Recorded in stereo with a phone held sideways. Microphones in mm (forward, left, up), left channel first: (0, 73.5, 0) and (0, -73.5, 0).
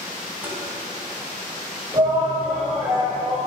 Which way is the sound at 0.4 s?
15° right (ahead or behind).